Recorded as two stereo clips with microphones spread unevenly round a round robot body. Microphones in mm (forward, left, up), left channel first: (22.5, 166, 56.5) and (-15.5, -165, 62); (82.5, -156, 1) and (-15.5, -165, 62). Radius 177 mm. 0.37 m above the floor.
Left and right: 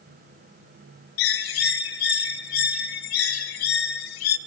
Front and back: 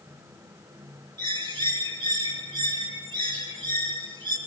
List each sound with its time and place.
1.2 s a bird: 110° left, 0.7 m